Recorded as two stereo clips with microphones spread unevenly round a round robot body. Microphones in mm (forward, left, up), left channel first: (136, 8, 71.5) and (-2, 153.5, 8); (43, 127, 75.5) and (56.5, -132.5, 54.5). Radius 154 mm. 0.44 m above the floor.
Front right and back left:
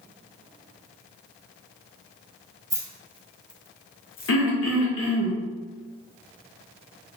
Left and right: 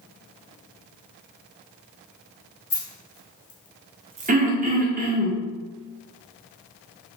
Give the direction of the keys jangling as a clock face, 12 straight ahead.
10 o'clock.